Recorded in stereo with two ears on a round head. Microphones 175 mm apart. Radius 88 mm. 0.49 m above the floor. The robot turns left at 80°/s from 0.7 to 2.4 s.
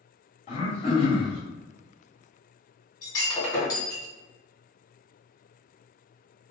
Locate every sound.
0.5 s throat clearing: 85° left, 1.3 m; by 1.4 s 25° left, 1.3 m
3.0 s breaking glass: 20° left (ahead or behind), 1.7 m